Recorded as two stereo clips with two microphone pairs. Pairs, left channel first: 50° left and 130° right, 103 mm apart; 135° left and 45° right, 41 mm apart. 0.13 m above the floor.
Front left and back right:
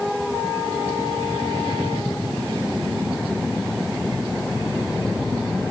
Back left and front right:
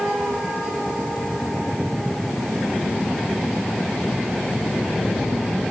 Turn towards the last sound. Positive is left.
No sound to turn to.